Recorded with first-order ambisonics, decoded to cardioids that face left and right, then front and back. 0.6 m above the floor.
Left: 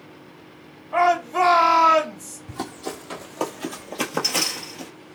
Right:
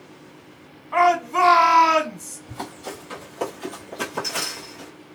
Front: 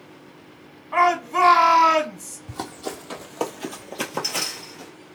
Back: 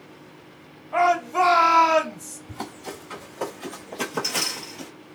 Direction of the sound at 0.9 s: 35° right.